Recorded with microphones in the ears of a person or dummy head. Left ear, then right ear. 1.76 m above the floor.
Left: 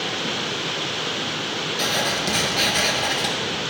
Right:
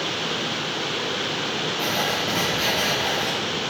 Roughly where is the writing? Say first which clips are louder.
Left 3 dB; left.